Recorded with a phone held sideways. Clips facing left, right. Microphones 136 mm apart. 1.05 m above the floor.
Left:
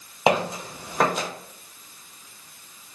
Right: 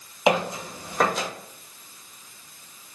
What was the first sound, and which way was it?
Footsteps, 35° left (ahead or behind).